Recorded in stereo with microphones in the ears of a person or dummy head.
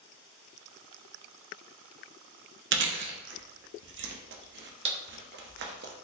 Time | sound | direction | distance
2.7 | chewing | 60° right (ahead or behind) | 0.5 m